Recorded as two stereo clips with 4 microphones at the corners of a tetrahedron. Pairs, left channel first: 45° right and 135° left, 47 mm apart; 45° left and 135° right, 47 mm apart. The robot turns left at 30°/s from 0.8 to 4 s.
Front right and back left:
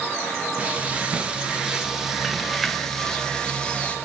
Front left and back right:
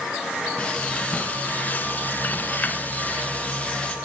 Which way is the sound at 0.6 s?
95° left.